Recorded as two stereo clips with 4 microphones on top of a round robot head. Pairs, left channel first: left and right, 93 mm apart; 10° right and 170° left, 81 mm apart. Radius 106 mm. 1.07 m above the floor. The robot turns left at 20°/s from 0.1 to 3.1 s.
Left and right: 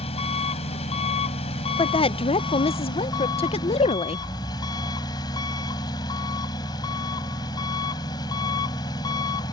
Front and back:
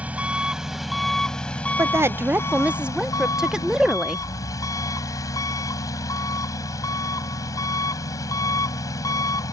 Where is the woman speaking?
115° left; by 4.2 s 90° left.